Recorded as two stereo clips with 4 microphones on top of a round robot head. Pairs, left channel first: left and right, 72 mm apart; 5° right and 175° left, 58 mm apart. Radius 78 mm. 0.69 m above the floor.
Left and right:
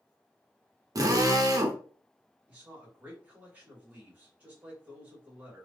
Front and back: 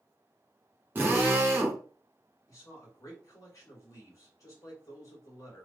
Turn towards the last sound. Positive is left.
turn(degrees=-25)